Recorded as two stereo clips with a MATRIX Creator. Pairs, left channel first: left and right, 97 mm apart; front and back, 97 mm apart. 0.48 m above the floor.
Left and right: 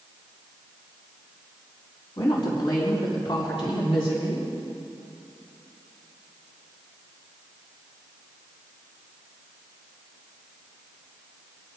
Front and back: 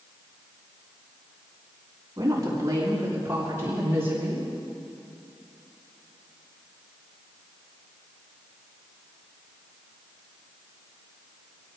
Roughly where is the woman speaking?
Behind left.